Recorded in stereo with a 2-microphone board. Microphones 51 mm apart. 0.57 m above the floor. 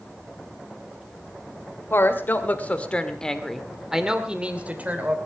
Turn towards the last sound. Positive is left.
turn(degrees=-35)  # may be behind; listen again after turning